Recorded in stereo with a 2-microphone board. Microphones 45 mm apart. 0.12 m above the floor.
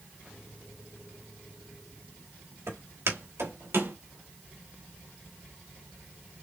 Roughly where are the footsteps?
Right.